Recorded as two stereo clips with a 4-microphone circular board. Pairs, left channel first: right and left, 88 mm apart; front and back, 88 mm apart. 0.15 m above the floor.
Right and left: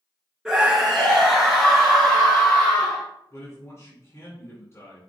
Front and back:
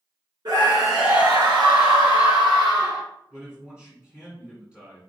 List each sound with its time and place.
0.5 s a scream: 175° left, 2 m; by 3.0 s 170° right, 3 m
3.3 s a man speaking: 110° right, 1.8 m